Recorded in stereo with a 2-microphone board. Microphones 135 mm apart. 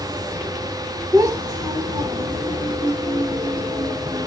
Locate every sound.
1.1 s a child speaking: 25° right (ahead or behind), 0.7 m